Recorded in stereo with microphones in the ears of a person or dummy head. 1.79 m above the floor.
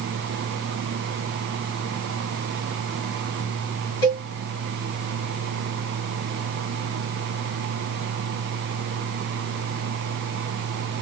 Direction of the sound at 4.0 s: 20° left (ahead or behind).